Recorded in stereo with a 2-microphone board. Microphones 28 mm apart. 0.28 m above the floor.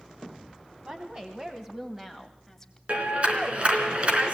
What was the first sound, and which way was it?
A woman speaking, 40° right (ahead or behind).